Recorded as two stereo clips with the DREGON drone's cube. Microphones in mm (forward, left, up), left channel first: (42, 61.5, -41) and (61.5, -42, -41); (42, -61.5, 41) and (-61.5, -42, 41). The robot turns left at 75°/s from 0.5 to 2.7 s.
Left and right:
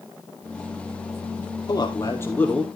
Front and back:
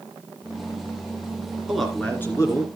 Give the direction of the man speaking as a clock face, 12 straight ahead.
9 o'clock.